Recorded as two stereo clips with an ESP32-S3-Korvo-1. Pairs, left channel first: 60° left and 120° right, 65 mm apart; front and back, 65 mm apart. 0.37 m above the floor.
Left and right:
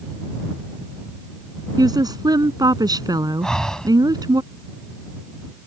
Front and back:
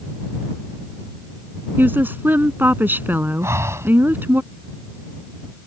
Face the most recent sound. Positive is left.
turn(degrees=140)